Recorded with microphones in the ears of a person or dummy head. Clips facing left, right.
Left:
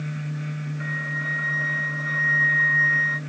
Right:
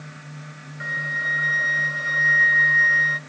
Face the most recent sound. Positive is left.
turn(degrees=-30)  # may be behind; listen again after turning